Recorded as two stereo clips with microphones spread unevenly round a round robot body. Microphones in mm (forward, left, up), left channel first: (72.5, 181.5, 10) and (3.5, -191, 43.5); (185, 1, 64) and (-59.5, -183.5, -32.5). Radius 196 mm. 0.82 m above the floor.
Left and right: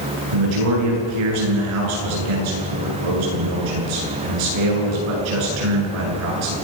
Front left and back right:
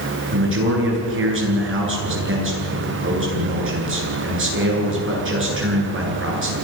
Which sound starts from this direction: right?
A man speaking, at 0.3 s.